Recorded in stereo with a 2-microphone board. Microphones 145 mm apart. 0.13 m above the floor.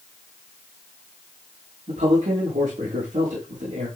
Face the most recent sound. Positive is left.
turn(degrees=-70)  # may be behind; listen again after turning